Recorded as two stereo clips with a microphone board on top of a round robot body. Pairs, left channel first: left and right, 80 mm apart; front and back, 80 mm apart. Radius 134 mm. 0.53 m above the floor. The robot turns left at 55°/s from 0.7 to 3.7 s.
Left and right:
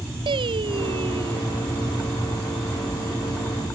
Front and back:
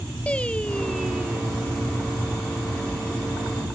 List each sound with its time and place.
0.3 s singing: 75° right; by 1.6 s 120° right